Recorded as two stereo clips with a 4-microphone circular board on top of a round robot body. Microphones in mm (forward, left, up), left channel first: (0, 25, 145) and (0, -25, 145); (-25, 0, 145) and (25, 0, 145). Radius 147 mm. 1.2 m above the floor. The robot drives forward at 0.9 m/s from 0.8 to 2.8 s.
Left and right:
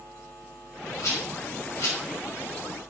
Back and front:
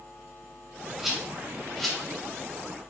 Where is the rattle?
80° left, 3.5 m; by 2.0 s 95° left, 3.5 m.